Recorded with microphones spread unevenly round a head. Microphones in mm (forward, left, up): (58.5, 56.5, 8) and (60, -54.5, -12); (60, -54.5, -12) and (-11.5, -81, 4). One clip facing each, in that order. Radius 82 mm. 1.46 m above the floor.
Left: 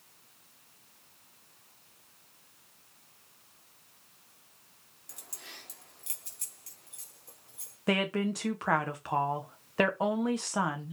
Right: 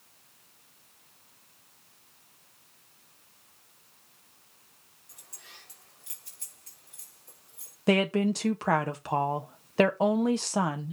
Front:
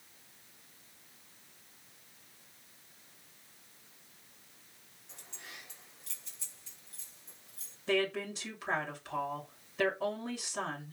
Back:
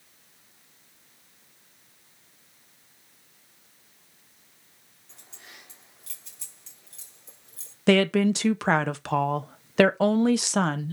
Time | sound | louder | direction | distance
5.1 | keys jangling | left 4 dB, even | 115° left | 2.5 m
7.9 | a woman speaking | right 5 dB, back 12 dB | 155° right | 1.0 m